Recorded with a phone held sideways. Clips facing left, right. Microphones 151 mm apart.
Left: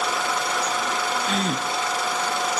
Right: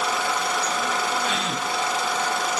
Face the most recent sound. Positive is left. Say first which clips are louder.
# left 2 dB
turn(degrees=45)  # may be behind; listen again after turning